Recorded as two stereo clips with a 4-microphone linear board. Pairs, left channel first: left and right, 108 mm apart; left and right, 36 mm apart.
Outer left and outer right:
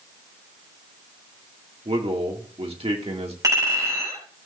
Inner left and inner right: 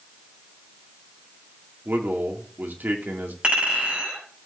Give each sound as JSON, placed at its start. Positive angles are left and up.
{"t": 1.9, "sound": "a man speaking", "side_deg": -75, "distance_m": 2.0}
{"t": 3.4, "sound": "a clink", "side_deg": -35, "distance_m": 6.0}